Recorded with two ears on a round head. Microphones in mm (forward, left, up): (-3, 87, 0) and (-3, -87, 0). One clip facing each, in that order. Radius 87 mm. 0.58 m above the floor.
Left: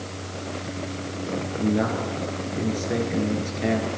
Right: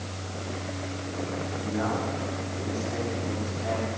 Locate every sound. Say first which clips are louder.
1.4 s a man speaking: left 9 dB; 65° left (ahead or behind), 8.5 m; by 3.9 s 85° left, 8 m